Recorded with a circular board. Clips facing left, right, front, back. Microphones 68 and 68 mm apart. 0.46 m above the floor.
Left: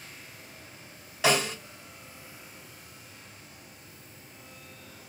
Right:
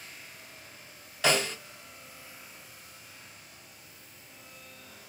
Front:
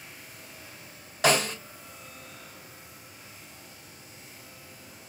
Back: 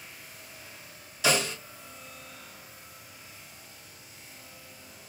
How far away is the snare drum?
About 1.7 m.